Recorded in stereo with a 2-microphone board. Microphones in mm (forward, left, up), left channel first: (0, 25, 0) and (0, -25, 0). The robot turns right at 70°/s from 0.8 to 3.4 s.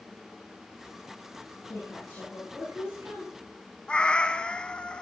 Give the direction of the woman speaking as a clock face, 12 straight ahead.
8 o'clock.